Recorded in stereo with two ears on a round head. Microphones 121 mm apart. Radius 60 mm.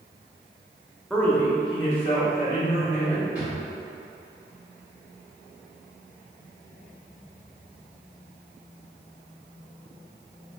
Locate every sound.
1.1 s a man speaking: centre (ahead or behind), 0.7 m; by 3.2 s 55° left (ahead or behind), 2 m
3.4 s a drawer: 10° right (ahead or behind), 1.9 m